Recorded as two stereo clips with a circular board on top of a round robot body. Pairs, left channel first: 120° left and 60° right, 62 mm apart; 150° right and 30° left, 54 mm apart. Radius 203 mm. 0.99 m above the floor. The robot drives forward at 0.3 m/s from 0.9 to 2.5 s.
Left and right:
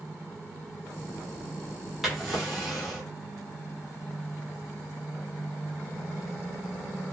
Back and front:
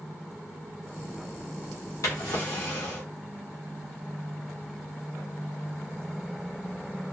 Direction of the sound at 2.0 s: 145° right.